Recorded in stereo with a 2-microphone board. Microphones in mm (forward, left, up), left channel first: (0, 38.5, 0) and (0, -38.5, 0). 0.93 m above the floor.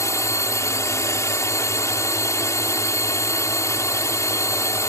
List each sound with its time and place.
0.0 s a drone: 40° left (ahead or behind)